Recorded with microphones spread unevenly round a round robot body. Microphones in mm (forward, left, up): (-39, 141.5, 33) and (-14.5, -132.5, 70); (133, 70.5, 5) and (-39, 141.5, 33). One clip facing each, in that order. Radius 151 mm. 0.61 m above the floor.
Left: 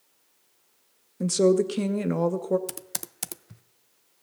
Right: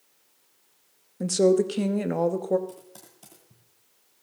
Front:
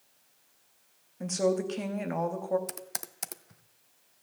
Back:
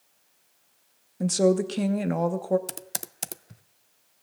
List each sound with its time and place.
1.2 s a woman speaking: 155° left, 0.9 m
2.7 s typing on a keyboard: 95° left, 0.5 m